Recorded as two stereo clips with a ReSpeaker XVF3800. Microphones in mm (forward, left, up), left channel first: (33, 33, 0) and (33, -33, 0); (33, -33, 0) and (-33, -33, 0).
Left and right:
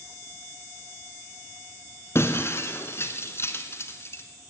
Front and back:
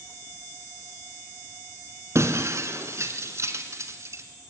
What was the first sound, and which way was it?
Breaking glass, 140° left.